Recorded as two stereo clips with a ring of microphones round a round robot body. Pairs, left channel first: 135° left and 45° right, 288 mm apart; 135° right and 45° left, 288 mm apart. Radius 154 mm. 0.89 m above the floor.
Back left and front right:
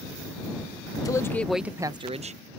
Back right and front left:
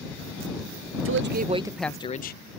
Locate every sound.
1.1 s a man speaking: 60° left; by 2.6 s 100° right